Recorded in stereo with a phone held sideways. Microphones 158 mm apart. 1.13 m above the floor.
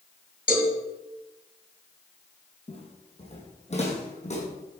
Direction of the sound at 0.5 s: 70° left (ahead or behind).